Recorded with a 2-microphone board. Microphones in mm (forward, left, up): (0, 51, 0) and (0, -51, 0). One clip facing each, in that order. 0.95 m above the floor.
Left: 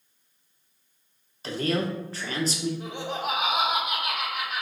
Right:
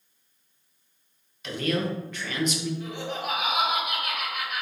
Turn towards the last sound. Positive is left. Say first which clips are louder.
# left 1 dB
turn(degrees=35)  # may be behind; listen again after turning